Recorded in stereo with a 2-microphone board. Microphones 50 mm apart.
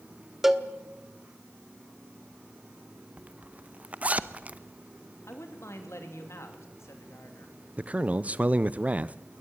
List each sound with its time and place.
0.4 s a cowbell: 5° right (ahead or behind), 1.1 m
3.2 s a zipper: 30° right (ahead or behind), 0.8 m
5.3 s a man speaking: 65° left (ahead or behind), 3 m
7.8 s a man speaking: 30° right (ahead or behind), 0.6 m